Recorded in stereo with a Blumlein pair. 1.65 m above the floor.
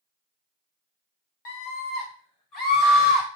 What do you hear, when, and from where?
1.4 s a scream: 50° left, 1.3 m; by 3.3 s 15° left, 2.0 m